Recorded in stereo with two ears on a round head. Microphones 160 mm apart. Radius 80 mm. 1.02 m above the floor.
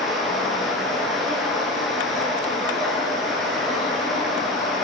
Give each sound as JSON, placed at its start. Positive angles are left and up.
{"t": 0.0, "sound": "running water", "side_deg": 0, "distance_m": 7.5}